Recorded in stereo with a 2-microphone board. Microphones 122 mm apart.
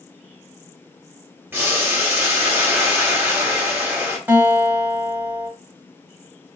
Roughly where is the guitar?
Centre.